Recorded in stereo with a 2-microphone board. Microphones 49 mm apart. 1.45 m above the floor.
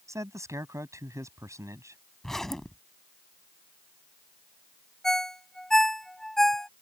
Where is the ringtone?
10° left (ahead or behind).